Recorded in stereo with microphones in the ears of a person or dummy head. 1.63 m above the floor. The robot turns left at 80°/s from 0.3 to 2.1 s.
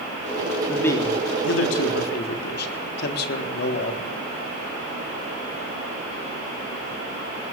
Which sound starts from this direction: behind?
A man speaking, at 0.7 s.